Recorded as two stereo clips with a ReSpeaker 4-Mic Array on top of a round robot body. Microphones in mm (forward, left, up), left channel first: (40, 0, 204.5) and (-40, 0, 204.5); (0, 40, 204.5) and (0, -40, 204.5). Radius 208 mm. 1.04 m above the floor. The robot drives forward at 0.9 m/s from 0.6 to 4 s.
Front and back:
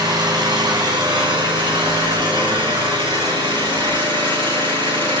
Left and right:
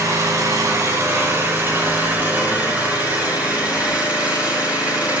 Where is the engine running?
145° right, 2.5 m; by 5.2 s 165° right, 5 m.